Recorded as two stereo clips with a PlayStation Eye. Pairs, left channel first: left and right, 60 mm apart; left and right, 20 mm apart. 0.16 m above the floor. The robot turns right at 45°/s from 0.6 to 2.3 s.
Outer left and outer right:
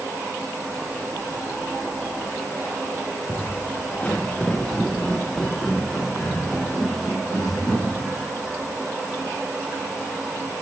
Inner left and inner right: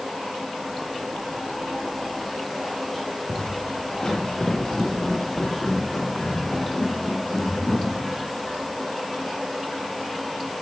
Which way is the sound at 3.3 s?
40° left (ahead or behind).